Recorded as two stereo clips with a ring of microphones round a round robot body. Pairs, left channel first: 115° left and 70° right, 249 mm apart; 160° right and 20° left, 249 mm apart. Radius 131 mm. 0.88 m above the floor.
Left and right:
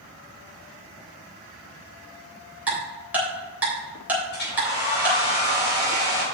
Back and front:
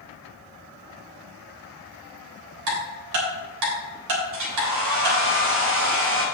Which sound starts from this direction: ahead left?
A hair dryer, at 4.3 s.